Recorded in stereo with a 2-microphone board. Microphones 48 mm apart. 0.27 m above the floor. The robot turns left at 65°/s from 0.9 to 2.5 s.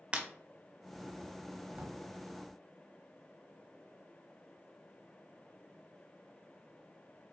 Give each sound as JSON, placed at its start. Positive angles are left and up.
{"t": 0.1, "sound": "breaking glass", "side_deg": -25, "distance_m": 0.8}
{"t": 1.7, "sound": "a drawer", "side_deg": -25, "distance_m": 0.9}